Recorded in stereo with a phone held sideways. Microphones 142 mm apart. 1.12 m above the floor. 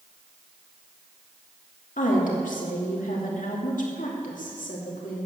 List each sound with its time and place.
2.0 s a woman speaking: 65° left (ahead or behind), 2.5 m